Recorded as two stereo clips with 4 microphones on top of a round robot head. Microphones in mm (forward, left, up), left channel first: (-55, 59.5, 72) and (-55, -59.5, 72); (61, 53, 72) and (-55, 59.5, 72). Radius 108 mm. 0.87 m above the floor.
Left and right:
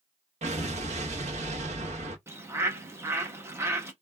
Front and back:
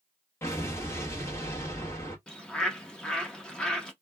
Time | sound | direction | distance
0.4 | an explosion | 70° right | 0.8 m
2.3 | a bird | 75° right | 0.9 m